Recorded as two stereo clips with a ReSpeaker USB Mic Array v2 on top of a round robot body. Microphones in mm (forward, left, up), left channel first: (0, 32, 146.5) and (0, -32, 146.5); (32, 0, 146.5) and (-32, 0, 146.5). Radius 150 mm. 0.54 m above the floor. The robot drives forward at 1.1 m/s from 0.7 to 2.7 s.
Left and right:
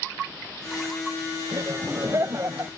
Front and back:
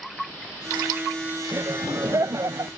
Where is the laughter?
130° right; by 2.7 s 145° right.